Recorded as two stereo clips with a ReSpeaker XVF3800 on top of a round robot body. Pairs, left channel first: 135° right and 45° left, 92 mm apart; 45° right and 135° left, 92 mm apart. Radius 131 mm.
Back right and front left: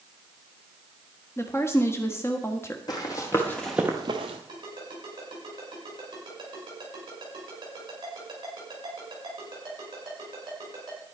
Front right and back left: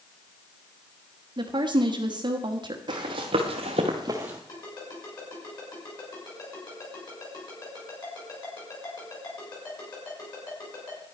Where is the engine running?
No engine running in this recording.